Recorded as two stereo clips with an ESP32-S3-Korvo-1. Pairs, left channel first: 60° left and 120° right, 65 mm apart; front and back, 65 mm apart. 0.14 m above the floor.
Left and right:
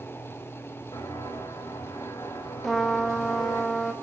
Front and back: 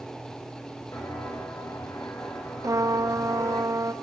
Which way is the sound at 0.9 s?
45° left.